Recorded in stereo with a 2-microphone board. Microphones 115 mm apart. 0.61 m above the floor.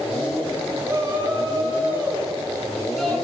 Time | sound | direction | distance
0.8 | a shout | 25° right (ahead or behind) | 5.5 m